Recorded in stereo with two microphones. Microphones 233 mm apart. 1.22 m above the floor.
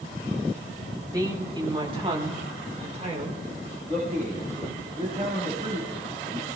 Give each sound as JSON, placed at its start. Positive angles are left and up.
{"t": 1.1, "sound": "a woman speaking", "side_deg": -15, "distance_m": 2.0}
{"t": 3.9, "sound": "a man speaking", "side_deg": -35, "distance_m": 6.0}